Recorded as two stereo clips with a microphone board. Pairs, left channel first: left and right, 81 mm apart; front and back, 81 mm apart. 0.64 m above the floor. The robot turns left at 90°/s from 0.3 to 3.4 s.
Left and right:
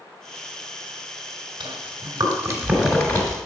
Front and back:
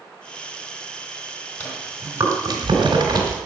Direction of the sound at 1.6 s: 60° right.